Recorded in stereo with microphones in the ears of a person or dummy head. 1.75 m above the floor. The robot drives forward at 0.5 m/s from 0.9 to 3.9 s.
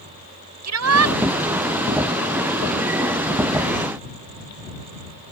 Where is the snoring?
I don't hear snoring.